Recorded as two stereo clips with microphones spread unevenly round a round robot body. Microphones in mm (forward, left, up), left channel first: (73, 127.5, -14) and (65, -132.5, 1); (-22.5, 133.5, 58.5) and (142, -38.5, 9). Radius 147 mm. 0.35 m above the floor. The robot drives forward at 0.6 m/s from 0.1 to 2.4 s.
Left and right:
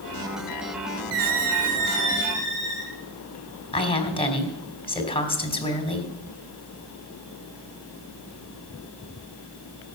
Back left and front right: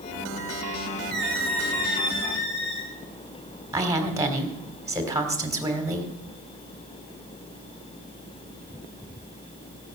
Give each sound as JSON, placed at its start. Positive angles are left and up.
{"t": 1.1, "sound": "a squeak", "azimuth_deg": -130, "distance_m": 1.5}
{"t": 3.7, "sound": "a woman speaking", "azimuth_deg": 20, "distance_m": 2.5}